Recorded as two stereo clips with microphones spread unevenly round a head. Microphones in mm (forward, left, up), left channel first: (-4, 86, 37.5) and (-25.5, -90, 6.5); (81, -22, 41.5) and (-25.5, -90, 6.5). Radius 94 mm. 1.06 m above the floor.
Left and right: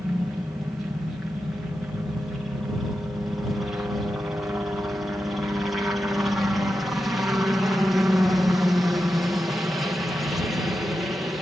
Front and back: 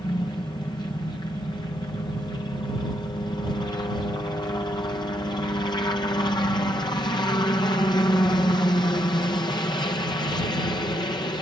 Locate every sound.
0.0 s a helicopter: 20° right